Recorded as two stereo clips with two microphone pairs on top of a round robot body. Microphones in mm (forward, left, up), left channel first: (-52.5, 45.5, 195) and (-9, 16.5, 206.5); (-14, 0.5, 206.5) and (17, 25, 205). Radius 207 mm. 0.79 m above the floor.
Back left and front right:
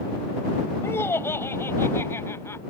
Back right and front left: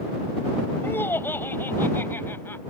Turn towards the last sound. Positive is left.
turn(degrees=-175)